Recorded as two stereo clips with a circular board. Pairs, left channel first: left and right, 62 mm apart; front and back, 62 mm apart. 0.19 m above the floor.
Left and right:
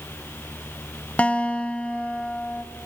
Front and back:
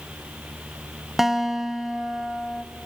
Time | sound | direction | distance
1.2 | a guitar | 100° left | 0.7 m